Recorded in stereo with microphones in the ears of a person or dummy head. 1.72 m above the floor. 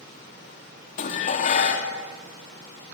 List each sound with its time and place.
1.0 s dishes clattering: 45° left (ahead or behind), 2 m